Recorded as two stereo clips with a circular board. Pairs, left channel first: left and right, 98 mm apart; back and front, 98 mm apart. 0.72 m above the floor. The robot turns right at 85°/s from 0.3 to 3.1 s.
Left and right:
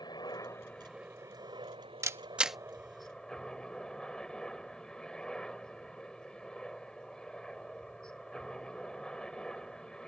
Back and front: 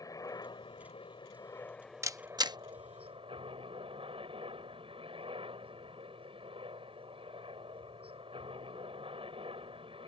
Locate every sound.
0.0 s a helicopter: 130° left; by 10.1 s 10° left
2.0 s a camera shutter: 45° right; by 2.6 s straight ahead